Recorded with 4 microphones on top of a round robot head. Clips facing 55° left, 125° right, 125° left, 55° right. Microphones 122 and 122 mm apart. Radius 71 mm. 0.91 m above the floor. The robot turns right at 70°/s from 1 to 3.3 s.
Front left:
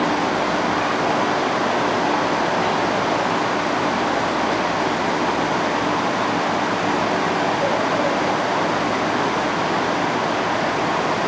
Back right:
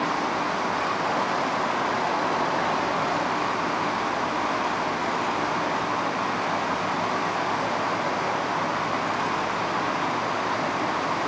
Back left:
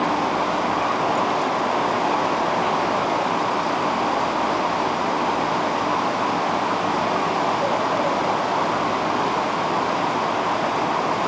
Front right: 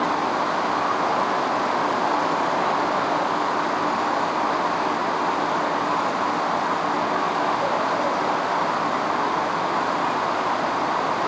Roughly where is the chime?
I don't hear a chime.